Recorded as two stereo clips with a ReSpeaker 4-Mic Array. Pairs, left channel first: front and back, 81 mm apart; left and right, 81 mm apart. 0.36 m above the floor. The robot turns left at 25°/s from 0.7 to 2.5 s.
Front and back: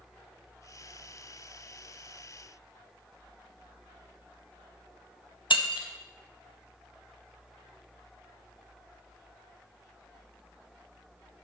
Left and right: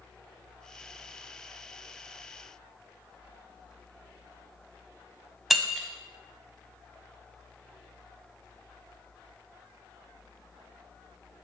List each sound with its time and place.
5.5 s breaking glass: straight ahead, 0.7 m